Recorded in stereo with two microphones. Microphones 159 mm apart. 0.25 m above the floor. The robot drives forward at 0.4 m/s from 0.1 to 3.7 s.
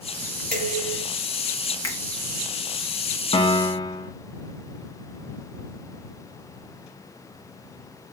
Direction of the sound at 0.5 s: 60° right (ahead or behind).